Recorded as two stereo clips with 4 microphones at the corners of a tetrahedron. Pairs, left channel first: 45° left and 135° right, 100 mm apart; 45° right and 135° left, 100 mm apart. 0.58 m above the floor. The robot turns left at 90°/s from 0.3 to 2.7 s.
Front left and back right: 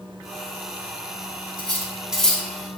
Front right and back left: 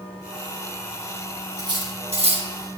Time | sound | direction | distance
1.6 | cutlery clinking | 170° right | 1.8 m